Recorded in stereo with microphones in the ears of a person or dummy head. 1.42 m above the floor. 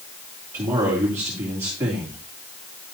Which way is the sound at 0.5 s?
15° right (ahead or behind).